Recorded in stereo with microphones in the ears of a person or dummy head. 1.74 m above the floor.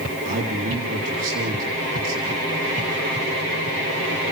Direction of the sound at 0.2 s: 45° right (ahead or behind).